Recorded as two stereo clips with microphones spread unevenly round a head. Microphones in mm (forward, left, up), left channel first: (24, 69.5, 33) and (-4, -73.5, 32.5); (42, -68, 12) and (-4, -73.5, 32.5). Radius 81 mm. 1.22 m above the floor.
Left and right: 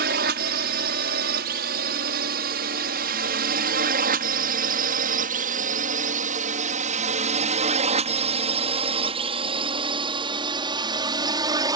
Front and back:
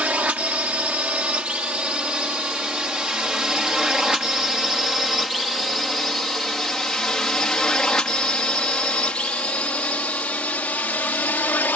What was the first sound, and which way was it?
A drone, 115° right.